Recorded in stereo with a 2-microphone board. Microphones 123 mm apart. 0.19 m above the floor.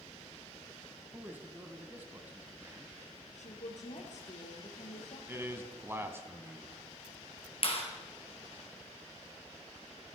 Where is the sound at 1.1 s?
15° right (ahead or behind), 1.0 m.